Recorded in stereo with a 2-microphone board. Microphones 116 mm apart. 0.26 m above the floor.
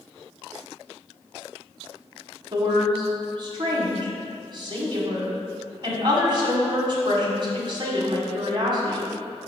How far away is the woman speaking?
About 1.6 m.